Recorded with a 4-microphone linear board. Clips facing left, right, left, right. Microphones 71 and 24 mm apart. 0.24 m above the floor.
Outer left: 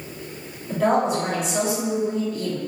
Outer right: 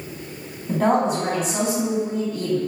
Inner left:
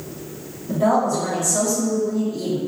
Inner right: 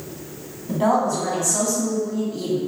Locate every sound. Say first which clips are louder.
0.7 s a woman speaking: outer right 1 dB, inner left 1 dB; 45° right (ahead or behind), 1.9 m